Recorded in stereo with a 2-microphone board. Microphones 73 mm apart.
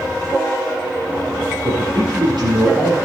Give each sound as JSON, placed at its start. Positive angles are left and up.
{"t": 1.6, "sound": "a man speaking", "side_deg": -75, "distance_m": 5.0}